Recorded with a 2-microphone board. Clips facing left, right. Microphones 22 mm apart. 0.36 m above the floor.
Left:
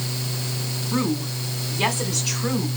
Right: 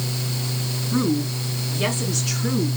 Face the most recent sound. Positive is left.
turn(degrees=65)  # may be behind; listen again after turning